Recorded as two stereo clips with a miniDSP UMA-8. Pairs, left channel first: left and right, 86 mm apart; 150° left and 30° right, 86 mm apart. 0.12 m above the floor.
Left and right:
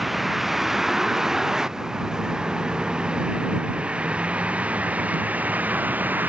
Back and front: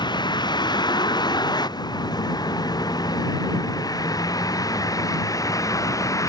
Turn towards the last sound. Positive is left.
turn(degrees=-160)